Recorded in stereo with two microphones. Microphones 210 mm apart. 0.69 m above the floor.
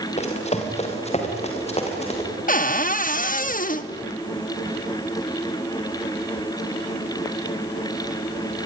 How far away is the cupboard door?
About 0.9 m.